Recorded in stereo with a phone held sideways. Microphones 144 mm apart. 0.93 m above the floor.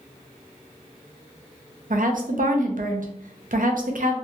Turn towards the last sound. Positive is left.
turn(degrees=-70)  # may be behind; listen again after turning